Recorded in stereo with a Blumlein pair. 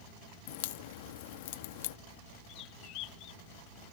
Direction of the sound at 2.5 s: 35° left.